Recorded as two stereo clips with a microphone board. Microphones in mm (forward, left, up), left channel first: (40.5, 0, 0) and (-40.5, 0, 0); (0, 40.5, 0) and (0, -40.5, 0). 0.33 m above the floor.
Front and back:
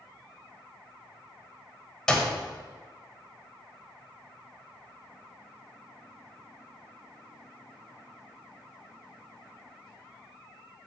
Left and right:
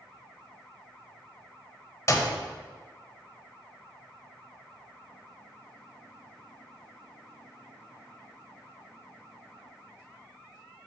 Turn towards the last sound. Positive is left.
turn(degrees=75)